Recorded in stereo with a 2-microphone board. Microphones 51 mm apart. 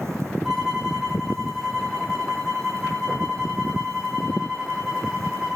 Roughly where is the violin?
Centre.